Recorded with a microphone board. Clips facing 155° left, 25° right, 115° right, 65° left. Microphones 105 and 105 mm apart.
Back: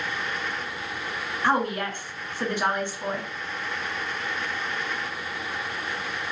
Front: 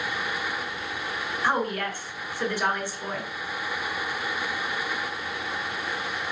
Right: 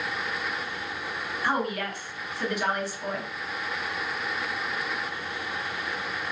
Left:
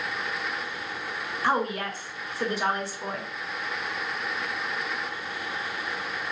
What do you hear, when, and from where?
1.4 s a woman speaking: 100° left, 1.3 m